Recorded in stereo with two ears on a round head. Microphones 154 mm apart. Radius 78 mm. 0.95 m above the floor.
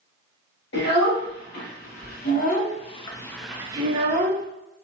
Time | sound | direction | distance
0.7 | a child speaking | 70° left (ahead or behind) | 1.7 m